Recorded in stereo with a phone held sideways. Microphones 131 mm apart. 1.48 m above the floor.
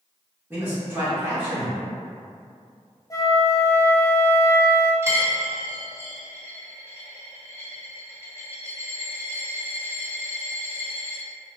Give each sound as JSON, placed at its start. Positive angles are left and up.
{"t": 0.5, "sound": "a man speaking", "side_deg": -15, "distance_m": 1.7}
{"t": 3.1, "sound": "a flute", "side_deg": 30, "distance_m": 0.5}
{"t": 5.0, "sound": "a dropped coin", "side_deg": -20, "distance_m": 1.3}